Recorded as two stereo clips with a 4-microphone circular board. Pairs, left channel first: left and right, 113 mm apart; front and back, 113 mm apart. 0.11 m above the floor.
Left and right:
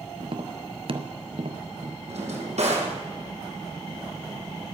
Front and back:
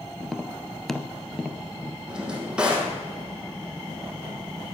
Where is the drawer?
100° right, 2.5 m.